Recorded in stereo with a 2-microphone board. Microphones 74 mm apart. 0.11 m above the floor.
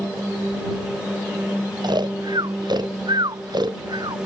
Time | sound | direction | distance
1.8 | snoring | 70° right (ahead or behind) | ?